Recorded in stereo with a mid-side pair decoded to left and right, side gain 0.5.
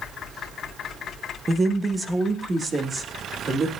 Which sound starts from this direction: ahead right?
A woman speaking, at 1.5 s.